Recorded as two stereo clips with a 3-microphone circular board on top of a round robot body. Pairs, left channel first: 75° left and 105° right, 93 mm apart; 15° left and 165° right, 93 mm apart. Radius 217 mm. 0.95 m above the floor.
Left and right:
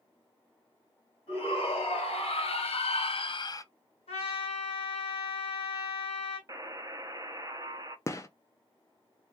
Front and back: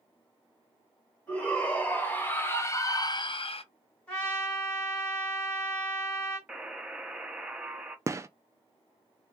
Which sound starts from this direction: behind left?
A gunshot, at 8.1 s.